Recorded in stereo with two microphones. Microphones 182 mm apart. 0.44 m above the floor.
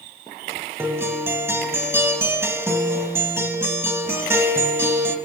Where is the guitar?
15° right (ahead or behind), 0.7 m.